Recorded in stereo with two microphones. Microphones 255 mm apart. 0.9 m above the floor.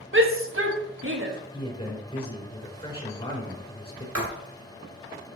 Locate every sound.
0.1 s a shout: 55° right (ahead or behind), 1.2 m
1.5 s a man speaking: 20° left (ahead or behind), 3.5 m
4.2 s writing: 75° right (ahead or behind), 1.8 m